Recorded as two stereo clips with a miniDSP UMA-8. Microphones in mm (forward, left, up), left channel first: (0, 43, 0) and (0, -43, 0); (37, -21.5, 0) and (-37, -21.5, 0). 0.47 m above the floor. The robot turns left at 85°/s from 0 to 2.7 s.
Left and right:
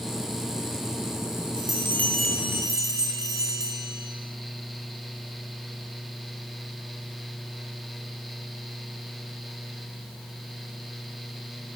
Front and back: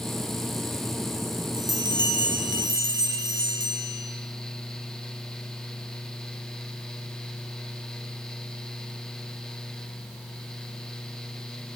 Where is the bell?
55° left, 7.5 m; by 4.1 s 40° right, 7.5 m.